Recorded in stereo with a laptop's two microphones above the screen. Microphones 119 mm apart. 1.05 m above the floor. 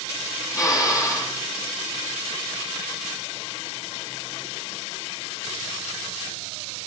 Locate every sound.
0.5 s a drill: 25° left (ahead or behind), 5.5 m